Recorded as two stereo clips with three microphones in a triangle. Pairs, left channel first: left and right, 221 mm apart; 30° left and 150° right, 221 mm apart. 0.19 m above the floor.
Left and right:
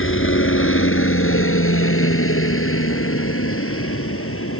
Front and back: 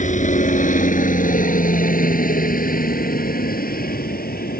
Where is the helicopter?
85° left; by 4.6 s 75° left.